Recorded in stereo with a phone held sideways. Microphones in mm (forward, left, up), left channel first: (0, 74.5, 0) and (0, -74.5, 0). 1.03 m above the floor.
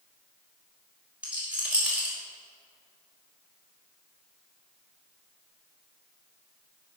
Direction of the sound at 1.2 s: 10° right (ahead or behind).